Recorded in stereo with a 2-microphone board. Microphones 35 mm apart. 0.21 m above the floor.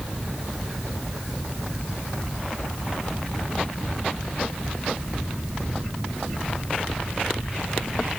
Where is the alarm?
No alarm in this recording.